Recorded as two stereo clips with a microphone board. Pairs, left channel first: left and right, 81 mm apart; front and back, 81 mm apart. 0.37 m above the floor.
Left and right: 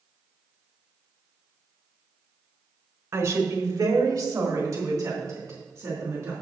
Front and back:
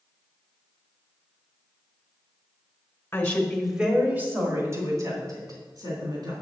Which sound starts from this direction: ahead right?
A woman speaking, at 3.1 s.